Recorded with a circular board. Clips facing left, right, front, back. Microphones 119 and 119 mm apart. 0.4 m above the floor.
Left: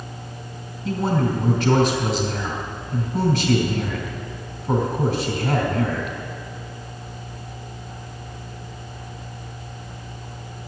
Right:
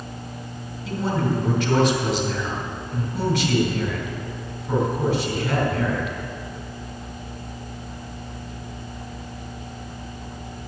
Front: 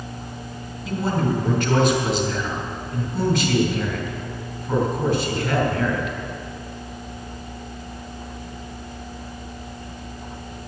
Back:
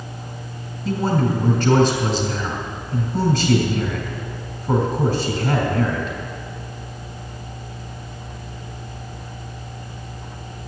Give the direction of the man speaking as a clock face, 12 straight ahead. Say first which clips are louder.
Left 2 dB, back 3 dB; 7 o'clock.